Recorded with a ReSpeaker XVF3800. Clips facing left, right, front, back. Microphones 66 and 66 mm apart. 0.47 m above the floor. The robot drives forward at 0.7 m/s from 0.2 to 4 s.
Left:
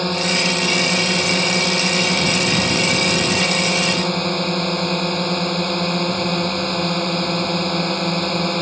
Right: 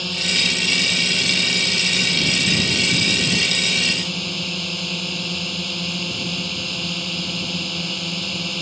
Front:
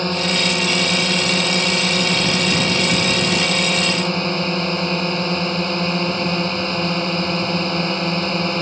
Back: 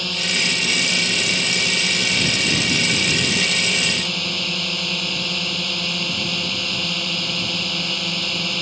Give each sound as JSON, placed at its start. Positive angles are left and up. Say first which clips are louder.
{"t": 0.0, "sound": "a drone", "louder": "left 5 dB, front 5 dB", "azimuth_deg": 50}